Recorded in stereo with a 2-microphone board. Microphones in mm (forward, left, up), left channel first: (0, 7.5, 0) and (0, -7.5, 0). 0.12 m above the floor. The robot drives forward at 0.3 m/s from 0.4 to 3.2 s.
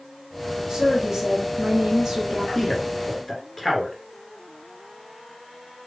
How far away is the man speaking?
About 1.7 m.